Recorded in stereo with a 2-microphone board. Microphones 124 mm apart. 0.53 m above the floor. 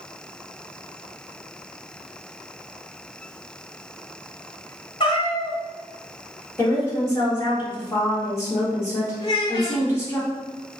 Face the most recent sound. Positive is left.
turn(degrees=45)  # may be behind; listen again after turning